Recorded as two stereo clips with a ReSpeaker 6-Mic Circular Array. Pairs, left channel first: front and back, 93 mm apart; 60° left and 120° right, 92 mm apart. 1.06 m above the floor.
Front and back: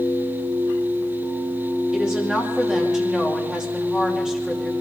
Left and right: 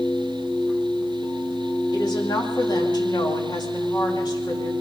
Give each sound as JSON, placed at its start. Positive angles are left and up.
{"t": 1.9, "sound": "a woman speaking", "azimuth_deg": 100, "distance_m": 2.5}